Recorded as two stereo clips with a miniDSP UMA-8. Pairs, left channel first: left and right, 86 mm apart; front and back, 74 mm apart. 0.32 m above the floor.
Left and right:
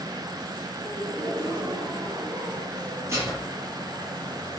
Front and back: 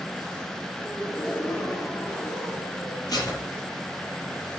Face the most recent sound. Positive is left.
turn(degrees=-35)